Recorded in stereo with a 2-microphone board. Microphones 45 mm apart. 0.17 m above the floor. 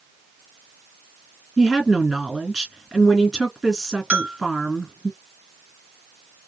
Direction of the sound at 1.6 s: Centre (ahead or behind).